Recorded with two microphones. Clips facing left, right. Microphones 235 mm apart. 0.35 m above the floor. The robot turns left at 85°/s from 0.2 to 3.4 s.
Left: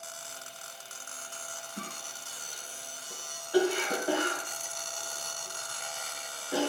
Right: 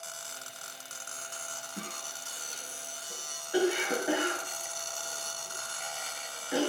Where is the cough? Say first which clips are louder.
Right 1 dB; 25° right (ahead or behind), 5 m; by 6.7 s 15° right (ahead or behind), 5 m.